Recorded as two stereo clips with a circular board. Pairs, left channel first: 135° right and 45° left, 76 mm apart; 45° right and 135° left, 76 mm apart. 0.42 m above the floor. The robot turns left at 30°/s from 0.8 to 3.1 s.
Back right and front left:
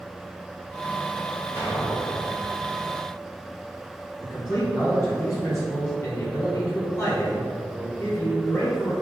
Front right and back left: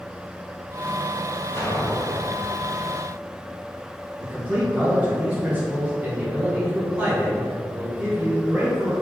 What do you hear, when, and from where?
1.6 s an explosion: 5° right, 1.4 m; by 2.3 s 25° right, 1.4 m
4.2 s a man speaking: 170° right, 1.8 m